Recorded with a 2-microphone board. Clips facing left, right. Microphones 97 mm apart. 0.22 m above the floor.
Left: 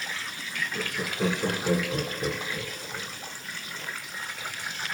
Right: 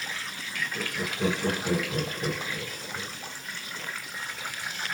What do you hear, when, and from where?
0.7 s laughter: 15° left (ahead or behind), 2.0 m